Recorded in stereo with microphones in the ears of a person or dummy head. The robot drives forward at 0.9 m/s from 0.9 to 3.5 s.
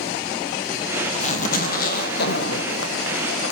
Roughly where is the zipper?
Left.